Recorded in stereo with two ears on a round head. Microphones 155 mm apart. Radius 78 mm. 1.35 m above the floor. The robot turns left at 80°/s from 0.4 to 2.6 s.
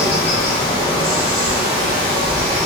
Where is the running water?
55° left, 1.1 m; by 2.7 s 120° right, 1.1 m.